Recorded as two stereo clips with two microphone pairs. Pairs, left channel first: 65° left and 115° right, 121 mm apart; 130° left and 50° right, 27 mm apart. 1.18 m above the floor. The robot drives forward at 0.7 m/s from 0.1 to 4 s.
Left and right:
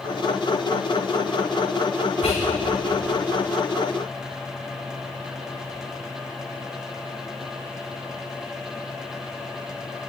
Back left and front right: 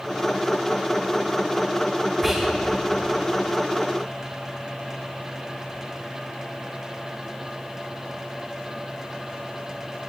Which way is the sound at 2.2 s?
35° left.